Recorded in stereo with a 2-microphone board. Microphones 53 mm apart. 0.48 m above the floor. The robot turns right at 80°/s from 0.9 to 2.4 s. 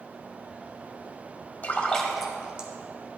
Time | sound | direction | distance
1.6 | a splash | 40° left (ahead or behind) | 1.2 m